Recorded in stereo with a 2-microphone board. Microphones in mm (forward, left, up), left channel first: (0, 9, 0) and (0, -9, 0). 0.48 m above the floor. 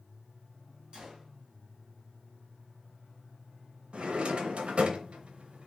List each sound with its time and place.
0.9 s a gunshot: 55° right (ahead or behind), 2 m
3.9 s a drawer: 75° right (ahead or behind), 0.8 m